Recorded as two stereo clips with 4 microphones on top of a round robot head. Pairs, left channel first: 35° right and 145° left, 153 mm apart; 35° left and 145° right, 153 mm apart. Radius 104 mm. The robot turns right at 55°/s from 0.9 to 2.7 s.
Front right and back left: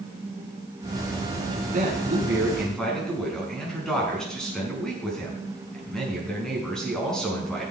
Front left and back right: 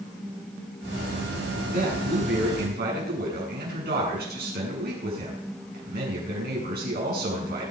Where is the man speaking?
175° right, 6.5 m; by 7.7 s 120° right, 6.5 m.